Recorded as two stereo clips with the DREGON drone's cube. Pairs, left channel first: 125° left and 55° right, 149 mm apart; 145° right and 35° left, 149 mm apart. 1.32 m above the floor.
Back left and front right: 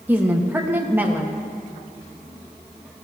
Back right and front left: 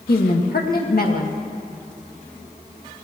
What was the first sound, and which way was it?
A woman speaking, 135° right.